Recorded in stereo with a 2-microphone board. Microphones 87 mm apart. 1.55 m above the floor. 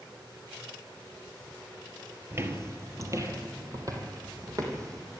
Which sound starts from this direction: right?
Footsteps, at 2.3 s.